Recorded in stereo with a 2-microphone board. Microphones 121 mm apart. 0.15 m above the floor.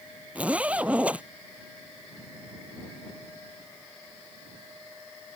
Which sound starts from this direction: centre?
A zipper, at 0.3 s.